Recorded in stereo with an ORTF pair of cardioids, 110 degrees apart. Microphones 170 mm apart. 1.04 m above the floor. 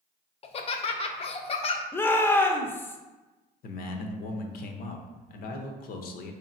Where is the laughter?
35° left, 0.6 m.